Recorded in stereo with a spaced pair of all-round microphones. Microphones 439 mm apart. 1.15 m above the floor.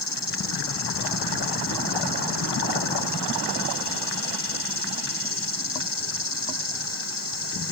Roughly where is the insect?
Left.